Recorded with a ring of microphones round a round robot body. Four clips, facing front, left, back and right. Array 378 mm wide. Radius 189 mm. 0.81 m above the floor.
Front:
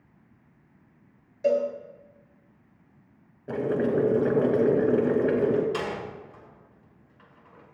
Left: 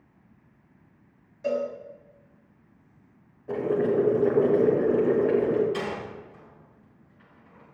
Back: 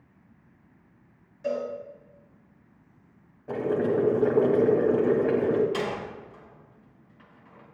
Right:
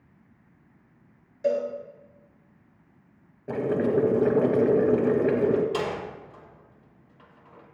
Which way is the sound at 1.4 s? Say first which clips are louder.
Right 2 dB, front 6 dB; 40° right.